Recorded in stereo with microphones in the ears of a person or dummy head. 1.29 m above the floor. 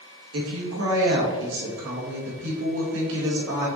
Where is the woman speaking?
80° right, 1.9 m.